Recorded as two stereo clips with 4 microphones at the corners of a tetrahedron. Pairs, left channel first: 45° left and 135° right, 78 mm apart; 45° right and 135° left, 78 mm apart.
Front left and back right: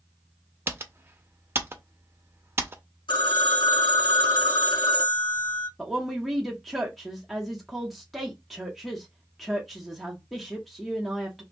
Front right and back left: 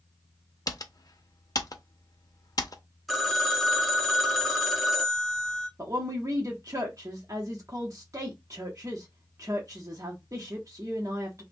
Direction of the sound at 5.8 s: 135° left.